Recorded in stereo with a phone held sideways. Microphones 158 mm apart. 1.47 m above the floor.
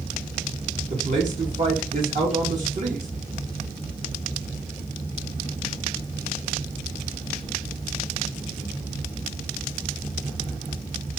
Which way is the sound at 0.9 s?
50° right (ahead or behind).